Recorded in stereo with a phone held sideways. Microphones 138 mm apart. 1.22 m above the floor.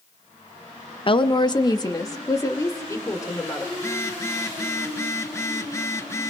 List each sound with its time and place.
1.1 s a woman speaking: 40° left (ahead or behind), 0.7 m; by 3.6 s 25° left (ahead or behind), 4 m
3.7 s a phone buzzing: 20° left (ahead or behind), 1.1 m